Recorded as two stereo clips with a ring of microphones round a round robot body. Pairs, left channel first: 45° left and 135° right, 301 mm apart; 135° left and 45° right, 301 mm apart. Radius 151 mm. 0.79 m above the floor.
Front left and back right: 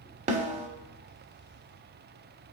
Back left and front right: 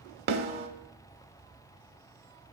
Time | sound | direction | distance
0.3 | a snare drum | 80° right | 0.7 m